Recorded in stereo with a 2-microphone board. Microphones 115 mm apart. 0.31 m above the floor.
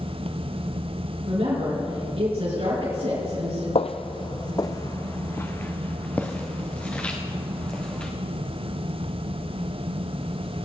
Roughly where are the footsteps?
Left.